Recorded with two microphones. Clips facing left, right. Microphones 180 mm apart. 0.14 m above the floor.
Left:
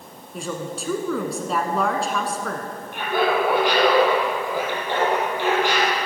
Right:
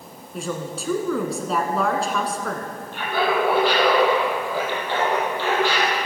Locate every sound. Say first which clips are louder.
0.3 s a woman speaking: right 1 dB; centre (ahead or behind), 1.3 m
2.9 s laughter: left 1 dB; 15° left (ahead or behind), 5 m